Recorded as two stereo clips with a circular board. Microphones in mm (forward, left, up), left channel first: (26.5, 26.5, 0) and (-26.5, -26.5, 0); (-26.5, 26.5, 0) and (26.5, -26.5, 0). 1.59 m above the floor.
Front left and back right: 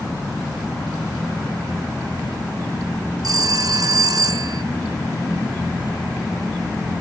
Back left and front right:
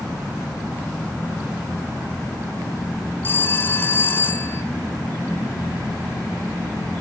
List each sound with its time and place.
3.2 s a phone ringing: 165° right, 1.6 m